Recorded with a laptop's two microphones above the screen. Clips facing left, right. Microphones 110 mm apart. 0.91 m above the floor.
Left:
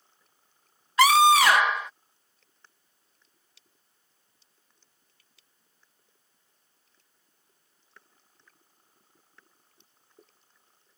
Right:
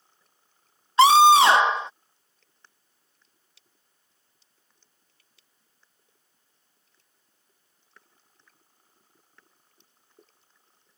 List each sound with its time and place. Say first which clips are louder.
1.0 s a scream: right 4 dB; 25° right (ahead or behind)